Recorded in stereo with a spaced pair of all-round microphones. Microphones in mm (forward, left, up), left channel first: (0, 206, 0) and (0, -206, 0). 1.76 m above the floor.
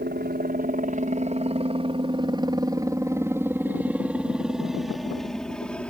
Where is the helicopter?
25° right (ahead or behind); by 5.9 s 5° left (ahead or behind).